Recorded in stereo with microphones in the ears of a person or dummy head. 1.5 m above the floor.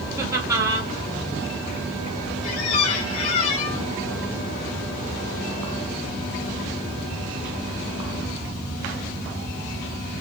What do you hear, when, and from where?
0.2 s laughter: 20° right (ahead or behind), 2.5 m
2.4 s a squeak: 45° left (ahead or behind), 3 m